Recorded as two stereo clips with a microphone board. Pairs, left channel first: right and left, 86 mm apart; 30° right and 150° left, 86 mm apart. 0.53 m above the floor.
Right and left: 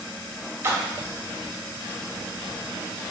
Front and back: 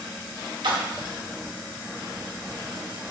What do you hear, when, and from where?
0.6 s a splash: 145° left, 0.5 m